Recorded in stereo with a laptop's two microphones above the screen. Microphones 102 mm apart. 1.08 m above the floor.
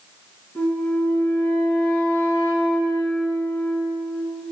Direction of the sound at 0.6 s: 25° left (ahead or behind).